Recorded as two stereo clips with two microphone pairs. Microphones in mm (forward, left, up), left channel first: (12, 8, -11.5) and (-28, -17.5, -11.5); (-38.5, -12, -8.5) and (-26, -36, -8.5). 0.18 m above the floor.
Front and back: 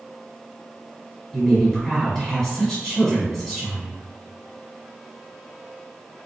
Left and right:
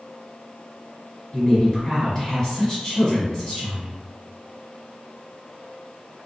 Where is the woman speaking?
95° left, 1.3 m.